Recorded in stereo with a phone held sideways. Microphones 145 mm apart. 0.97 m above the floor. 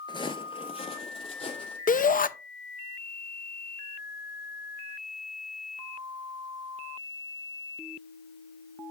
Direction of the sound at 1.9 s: 70° left (ahead or behind).